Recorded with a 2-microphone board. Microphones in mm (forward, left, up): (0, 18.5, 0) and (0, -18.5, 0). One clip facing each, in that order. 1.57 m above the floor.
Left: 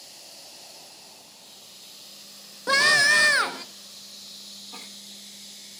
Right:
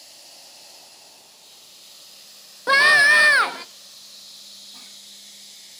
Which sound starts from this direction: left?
A giggle, at 4.7 s.